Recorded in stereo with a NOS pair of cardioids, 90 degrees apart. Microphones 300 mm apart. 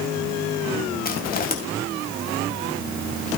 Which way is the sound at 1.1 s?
30° left.